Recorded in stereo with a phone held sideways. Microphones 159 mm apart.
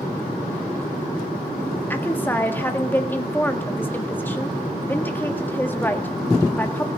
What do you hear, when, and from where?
1.9 s a woman speaking: 10° left (ahead or behind), 1.6 m